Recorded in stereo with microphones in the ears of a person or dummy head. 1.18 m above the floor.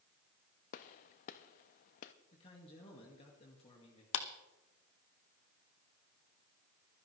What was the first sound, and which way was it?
A gunshot, 40° left (ahead or behind).